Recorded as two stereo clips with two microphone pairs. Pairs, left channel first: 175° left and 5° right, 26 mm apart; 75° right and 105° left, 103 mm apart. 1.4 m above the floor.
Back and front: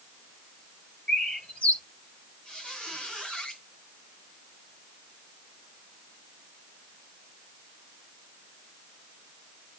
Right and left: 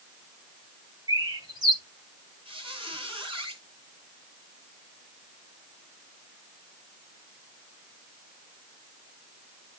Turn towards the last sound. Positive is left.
turn(degrees=130)